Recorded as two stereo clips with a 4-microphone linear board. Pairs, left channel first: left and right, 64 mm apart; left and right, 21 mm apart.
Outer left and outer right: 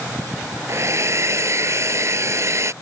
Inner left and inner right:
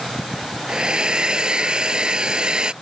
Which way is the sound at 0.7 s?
50° right (ahead or behind).